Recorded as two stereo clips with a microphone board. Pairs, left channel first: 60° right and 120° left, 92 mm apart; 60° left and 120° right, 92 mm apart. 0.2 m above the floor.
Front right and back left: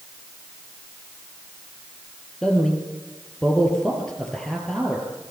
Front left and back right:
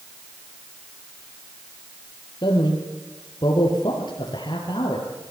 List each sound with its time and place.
2.4 s a man speaking: 25° left, 4 m